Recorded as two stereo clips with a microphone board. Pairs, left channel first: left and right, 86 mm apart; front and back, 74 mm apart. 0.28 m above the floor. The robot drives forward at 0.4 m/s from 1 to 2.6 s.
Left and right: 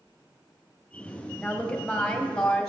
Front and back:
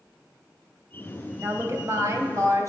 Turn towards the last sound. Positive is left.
turn(degrees=170)